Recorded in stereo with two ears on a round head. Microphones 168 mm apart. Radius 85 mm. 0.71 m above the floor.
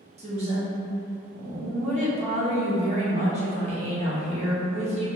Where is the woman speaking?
35° right (ahead or behind), 0.8 m.